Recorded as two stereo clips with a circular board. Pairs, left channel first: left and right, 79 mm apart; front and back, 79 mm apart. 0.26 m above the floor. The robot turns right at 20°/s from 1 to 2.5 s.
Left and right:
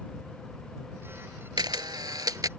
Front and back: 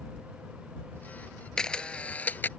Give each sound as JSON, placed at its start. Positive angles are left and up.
{"t": 1.6, "sound": "a camera shutter", "azimuth_deg": -80}